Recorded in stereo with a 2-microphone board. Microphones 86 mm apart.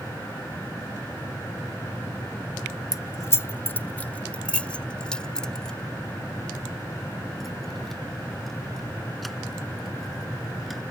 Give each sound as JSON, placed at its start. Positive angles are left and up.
{"t": 2.9, "sound": "keys jangling", "side_deg": 40}